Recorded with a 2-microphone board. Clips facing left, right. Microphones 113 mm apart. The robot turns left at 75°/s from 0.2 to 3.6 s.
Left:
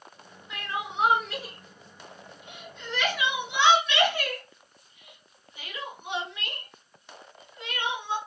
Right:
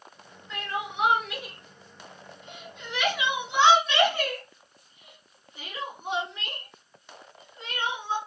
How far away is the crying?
About 1.8 m.